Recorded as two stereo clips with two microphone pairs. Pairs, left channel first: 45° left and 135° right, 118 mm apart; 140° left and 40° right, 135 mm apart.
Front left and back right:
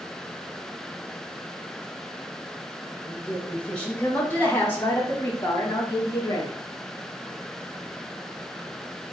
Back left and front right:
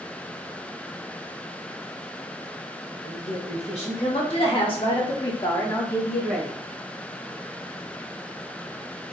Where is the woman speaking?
130° left, 2 m; by 6.5 s 40° left, 1.1 m.